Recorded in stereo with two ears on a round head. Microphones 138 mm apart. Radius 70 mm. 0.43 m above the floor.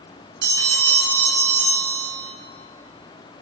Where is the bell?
85° right, 1.4 m.